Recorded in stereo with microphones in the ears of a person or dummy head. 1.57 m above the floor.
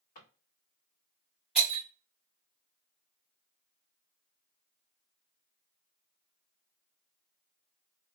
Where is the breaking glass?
5° right (ahead or behind), 1.4 m.